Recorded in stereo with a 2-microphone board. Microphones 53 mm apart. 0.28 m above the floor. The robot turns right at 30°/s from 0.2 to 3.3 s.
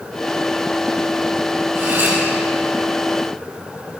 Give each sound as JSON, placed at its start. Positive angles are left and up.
{"t": 1.8, "sound": "cutlery clinking", "side_deg": -45, "distance_m": 4.0}